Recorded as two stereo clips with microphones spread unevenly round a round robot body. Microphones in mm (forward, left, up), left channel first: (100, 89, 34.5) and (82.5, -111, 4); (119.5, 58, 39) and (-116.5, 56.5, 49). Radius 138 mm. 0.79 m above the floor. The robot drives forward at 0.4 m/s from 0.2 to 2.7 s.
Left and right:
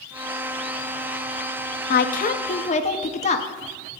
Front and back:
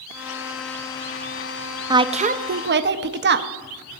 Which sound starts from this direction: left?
A woman speaking, at 1.9 s.